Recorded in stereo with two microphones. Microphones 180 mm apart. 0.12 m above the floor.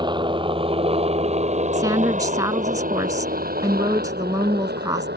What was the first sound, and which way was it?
A helicopter, 25° right (ahead or behind).